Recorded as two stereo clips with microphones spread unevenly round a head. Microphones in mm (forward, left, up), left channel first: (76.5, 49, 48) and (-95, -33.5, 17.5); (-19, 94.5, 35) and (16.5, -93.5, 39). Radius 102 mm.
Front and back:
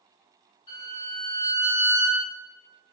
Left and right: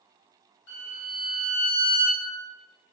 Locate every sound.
0.7 s a violin: 75° left, 1.2 m